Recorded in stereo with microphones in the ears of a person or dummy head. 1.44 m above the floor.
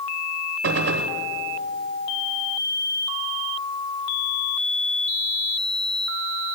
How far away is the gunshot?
About 0.7 m.